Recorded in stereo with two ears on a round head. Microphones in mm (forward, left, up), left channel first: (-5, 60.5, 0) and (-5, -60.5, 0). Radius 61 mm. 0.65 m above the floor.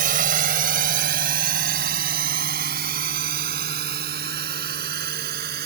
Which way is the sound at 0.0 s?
70° right (ahead or behind).